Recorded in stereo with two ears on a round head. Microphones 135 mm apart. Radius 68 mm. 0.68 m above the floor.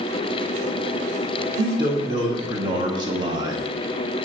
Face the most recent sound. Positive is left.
turn(degrees=-30)  # may be behind; listen again after turning